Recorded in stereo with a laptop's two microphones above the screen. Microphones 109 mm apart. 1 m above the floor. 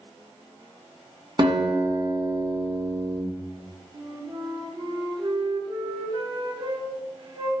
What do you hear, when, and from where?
1.4 s a guitar: 45° right (ahead or behind), 1.3 m
3.9 s a flute: 45° right (ahead or behind), 0.6 m